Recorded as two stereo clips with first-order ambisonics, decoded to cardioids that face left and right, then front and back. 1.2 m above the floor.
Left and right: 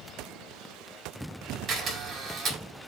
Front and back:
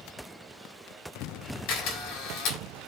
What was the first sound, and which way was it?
A camera shutter, 30° right.